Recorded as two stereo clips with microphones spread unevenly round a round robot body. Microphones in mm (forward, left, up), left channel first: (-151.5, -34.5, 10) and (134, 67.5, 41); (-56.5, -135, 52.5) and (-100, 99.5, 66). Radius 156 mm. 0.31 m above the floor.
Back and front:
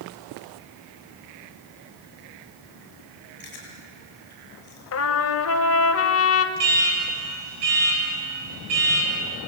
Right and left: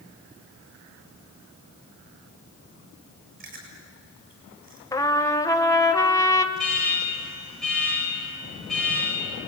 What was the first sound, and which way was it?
Chewing, 140° left.